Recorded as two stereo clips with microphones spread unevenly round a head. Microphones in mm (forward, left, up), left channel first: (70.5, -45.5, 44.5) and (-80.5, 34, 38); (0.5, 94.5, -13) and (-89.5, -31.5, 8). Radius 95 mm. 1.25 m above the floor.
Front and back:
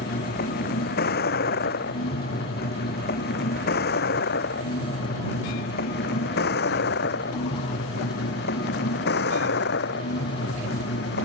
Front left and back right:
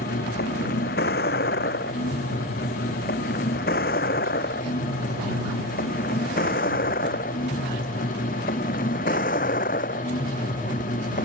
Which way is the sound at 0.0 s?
10° left.